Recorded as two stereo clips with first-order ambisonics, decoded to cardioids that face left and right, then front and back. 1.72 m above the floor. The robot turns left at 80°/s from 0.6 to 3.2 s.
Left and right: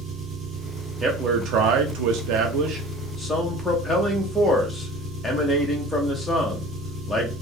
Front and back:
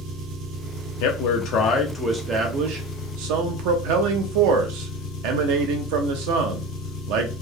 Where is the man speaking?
5° right, 0.9 m; by 7.3 s straight behind, 0.9 m.